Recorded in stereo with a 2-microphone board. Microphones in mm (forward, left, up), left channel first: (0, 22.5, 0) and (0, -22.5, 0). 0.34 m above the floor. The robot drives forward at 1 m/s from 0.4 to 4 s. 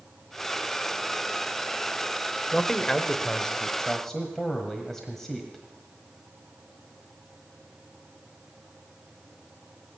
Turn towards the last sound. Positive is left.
turn(degrees=10)  # may be behind; listen again after turning